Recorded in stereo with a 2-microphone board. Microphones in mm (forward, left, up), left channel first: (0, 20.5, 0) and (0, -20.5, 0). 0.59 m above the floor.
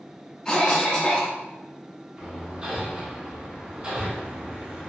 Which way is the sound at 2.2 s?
25° right (ahead or behind).